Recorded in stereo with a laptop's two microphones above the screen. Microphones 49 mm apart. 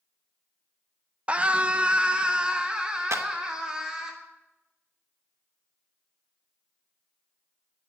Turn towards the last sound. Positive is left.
turn(degrees=-75)  # may be behind; listen again after turning